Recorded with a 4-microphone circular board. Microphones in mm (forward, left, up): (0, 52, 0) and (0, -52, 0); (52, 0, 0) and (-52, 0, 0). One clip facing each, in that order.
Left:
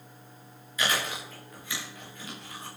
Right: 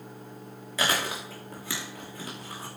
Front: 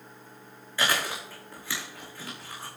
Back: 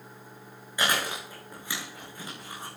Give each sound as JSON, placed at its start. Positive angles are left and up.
{"t": 0.8, "sound": "chewing", "azimuth_deg": -105, "distance_m": 6.0}